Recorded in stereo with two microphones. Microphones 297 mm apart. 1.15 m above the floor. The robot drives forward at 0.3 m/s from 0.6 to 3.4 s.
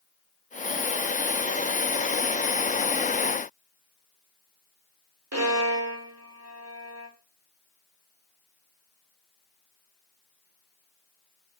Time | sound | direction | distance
5.3 | a violin | 55° right (ahead or behind) | 0.6 m